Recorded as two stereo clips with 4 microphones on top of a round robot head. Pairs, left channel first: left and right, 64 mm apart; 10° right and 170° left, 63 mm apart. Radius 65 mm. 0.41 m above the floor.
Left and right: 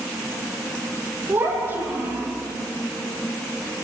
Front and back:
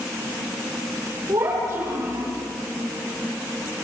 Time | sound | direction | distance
1.3 | a child speaking | 140° right | 10 m